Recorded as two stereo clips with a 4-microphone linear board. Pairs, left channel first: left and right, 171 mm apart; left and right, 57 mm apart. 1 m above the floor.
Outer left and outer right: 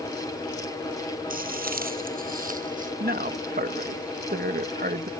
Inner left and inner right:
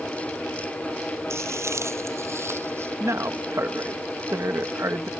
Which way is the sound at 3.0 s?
60° right (ahead or behind).